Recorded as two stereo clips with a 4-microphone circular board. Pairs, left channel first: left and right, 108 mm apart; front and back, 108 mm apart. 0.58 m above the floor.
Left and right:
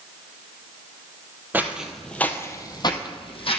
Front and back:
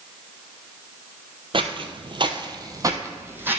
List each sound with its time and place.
1.5 s footsteps: 160° right, 0.9 m; by 3.6 s 110° left, 1.4 m